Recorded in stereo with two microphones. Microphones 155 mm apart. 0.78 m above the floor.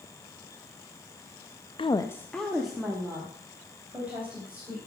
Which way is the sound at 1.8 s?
35° left (ahead or behind).